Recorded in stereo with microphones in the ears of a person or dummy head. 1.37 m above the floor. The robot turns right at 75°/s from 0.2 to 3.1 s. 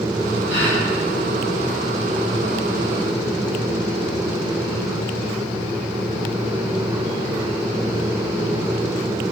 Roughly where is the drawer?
I don't hear a drawer.